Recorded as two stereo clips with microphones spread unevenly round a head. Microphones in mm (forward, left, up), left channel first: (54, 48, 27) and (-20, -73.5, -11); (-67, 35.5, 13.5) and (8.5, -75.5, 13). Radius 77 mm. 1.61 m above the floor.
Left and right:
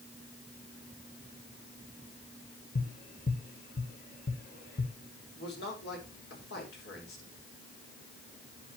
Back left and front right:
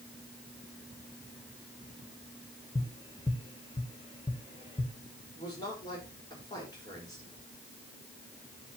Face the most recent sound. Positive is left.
turn(degrees=55)